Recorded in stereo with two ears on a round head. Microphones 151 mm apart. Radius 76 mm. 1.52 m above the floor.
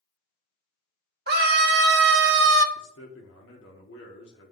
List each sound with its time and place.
1.3 s a scream: 65° right (ahead or behind), 1.6 m; by 2.6 s 80° right, 0.8 m
2.8 s a man speaking: 80° left, 1.6 m